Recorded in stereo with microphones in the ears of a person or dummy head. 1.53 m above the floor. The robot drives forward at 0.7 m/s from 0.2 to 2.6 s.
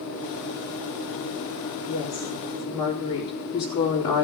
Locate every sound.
1.9 s a woman speaking: 25° left (ahead or behind), 2.5 m